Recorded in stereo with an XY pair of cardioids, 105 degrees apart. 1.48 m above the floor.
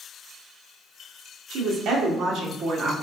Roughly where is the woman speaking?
Ahead right.